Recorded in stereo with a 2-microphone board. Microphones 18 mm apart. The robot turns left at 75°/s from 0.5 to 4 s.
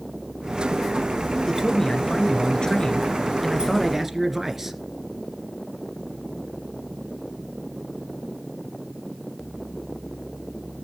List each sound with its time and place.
1.4 s a man speaking: 160° left, 2 m; by 4.8 s 30° right, 2 m